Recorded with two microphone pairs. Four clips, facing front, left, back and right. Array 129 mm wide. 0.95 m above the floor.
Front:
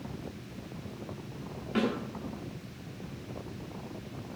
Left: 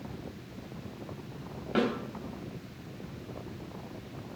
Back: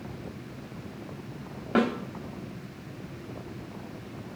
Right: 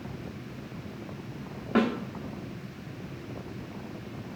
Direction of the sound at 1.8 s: 175° right.